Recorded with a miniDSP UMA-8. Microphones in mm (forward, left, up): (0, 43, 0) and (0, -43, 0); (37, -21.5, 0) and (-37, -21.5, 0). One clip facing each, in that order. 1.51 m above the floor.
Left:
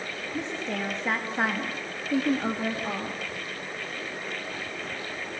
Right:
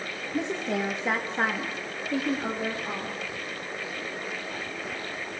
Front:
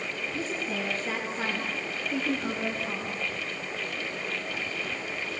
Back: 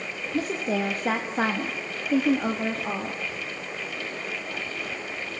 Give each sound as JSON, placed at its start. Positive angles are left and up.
{"t": 0.3, "sound": "a woman speaking", "azimuth_deg": -160, "distance_m": 1.9}